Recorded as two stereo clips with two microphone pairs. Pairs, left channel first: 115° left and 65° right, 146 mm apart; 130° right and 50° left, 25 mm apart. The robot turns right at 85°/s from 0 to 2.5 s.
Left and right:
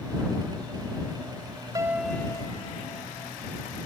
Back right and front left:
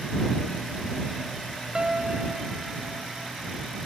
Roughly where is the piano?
Ahead.